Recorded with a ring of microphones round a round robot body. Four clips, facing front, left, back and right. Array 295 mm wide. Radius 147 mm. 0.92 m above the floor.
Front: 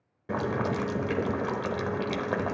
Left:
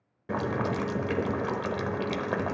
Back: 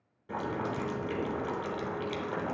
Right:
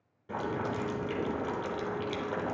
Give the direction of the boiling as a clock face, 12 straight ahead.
11 o'clock.